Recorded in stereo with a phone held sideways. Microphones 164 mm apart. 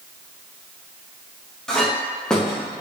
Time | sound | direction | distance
1.7 | a clink | 5° left (ahead or behind) | 0.6 m